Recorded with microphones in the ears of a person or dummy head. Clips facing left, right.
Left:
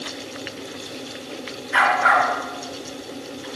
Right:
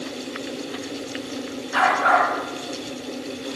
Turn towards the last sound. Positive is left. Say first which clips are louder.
# even
turn(degrees=30)  # may be behind; listen again after turning